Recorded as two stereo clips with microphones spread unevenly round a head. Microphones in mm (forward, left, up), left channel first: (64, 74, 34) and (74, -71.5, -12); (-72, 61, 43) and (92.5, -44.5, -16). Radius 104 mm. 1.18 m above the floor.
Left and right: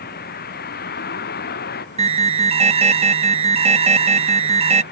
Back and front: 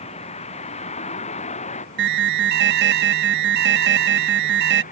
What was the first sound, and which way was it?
A vehicle, 90° left.